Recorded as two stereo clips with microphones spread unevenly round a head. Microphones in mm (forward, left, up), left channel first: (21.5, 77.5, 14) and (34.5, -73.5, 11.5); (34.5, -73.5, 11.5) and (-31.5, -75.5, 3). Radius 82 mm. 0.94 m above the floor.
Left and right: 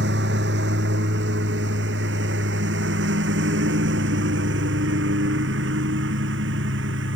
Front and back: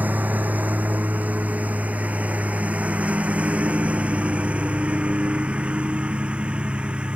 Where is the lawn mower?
115° right; by 7.2 s 105° right.